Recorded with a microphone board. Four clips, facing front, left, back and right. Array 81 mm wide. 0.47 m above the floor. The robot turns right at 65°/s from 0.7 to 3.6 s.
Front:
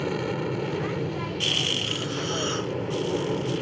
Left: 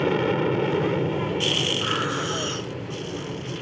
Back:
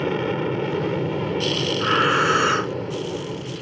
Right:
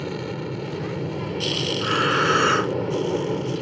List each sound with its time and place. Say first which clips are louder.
0.0 s an aircraft: left 8 dB, back 5 dB; 120° left; by 3.6 s 50° right
1.8 s breathing: right 5 dB, back 12 dB; straight behind; by 2.8 s 120° right